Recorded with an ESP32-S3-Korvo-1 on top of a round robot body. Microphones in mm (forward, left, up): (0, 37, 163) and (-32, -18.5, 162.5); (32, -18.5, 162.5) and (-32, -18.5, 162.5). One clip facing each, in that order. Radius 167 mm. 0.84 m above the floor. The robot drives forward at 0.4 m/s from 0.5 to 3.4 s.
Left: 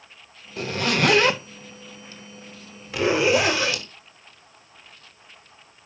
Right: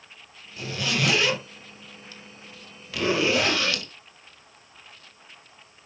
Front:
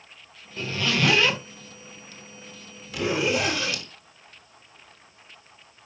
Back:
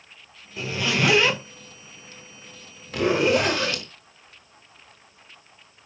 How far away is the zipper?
About 1.6 m.